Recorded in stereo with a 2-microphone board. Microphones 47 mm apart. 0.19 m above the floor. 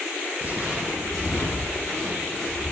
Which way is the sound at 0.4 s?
35° right (ahead or behind).